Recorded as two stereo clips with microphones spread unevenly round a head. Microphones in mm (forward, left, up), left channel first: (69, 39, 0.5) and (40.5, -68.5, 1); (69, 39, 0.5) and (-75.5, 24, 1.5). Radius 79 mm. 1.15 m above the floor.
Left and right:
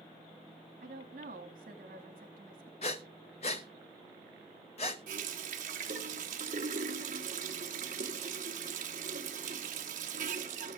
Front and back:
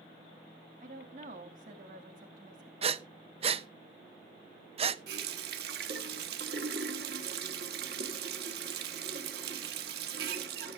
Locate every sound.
0.8 s a woman speaking: 125° right, 2.5 m
2.8 s breathing: 135° left, 0.8 m
5.1 s a running tap: 140° right, 1.3 m